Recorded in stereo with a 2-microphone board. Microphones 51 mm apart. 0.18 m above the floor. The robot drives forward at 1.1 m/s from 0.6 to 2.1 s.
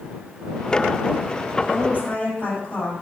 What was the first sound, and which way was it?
A woman speaking, 30° left (ahead or behind).